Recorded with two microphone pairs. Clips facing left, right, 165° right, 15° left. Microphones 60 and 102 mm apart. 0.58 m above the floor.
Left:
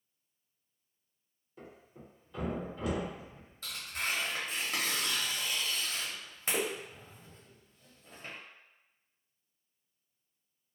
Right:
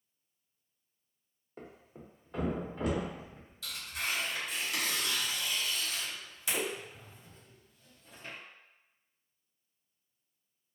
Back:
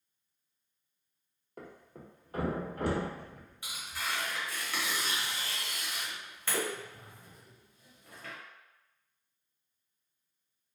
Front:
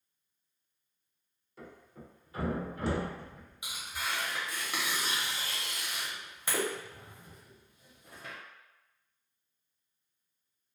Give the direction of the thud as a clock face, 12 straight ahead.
4 o'clock.